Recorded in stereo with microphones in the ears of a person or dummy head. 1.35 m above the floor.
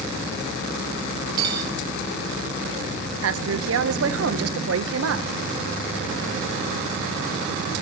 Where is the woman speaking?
75° right (ahead or behind), 1.2 m.